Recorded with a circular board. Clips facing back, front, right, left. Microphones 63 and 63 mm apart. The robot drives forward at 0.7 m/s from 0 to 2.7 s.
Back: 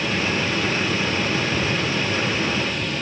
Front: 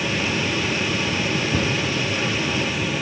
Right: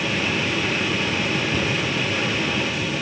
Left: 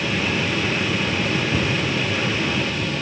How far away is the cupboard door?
About 2.5 m.